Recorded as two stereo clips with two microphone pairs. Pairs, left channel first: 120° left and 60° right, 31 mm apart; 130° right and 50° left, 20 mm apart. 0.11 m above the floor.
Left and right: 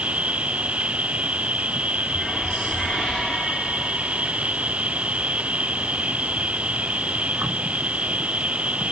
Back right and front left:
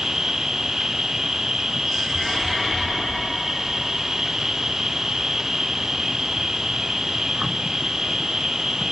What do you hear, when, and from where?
0.0 s an insect: 10° right